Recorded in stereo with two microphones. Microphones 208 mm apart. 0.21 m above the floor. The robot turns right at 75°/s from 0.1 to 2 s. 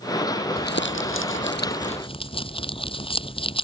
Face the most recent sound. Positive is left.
turn(degrees=155)